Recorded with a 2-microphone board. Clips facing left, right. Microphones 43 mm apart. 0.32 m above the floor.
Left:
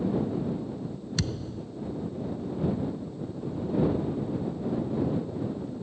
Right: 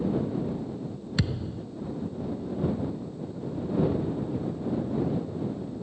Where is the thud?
15° right (ahead or behind).